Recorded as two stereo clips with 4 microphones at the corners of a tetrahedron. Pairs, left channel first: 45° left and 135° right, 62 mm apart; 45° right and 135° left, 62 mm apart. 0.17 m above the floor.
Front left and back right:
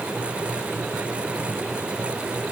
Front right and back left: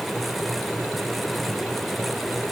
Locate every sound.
Only background noise.